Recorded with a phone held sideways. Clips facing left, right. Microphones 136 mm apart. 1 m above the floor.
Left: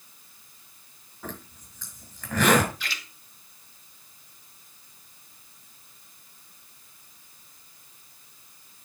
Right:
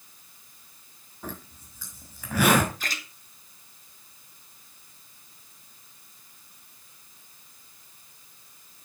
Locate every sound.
1.2 s a zipper: 10° right (ahead or behind), 5 m
2.8 s a splash: 45° right (ahead or behind), 1.8 m